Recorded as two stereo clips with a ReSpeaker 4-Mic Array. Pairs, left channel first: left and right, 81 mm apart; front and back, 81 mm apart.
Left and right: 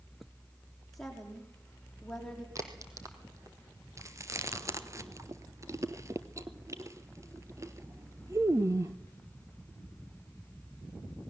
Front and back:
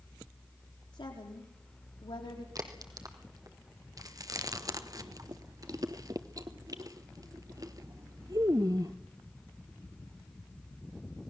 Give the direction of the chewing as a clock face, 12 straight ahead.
5 o'clock.